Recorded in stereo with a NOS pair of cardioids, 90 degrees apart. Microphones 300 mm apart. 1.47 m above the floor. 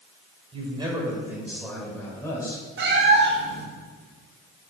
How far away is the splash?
I don't hear a splash.